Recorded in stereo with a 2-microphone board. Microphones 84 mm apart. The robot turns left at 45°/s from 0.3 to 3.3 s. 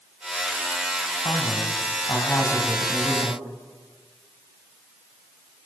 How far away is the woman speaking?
About 4 m.